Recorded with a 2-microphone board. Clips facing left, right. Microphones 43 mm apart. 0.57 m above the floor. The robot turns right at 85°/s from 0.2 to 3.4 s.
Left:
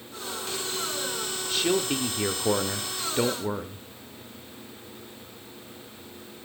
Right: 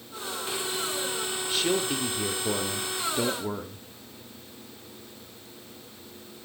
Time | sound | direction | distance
1.5 | a man speaking | 5° right | 1.4 m